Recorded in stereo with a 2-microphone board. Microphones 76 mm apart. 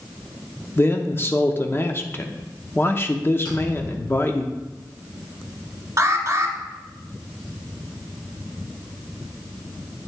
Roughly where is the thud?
Left.